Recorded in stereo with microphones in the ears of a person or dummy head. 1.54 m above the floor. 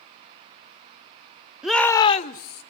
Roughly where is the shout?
Centre.